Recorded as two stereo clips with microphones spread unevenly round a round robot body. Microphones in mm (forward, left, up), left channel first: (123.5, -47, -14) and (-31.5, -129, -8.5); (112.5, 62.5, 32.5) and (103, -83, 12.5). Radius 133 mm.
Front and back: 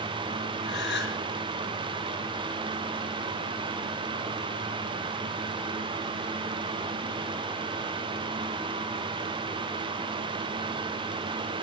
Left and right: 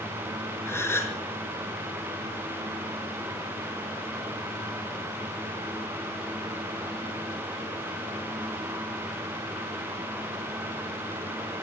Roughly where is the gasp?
Ahead.